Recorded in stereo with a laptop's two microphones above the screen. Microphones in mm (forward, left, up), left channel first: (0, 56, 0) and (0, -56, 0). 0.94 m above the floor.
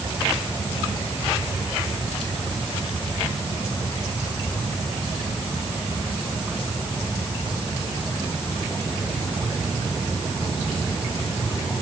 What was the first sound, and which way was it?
Only background noise.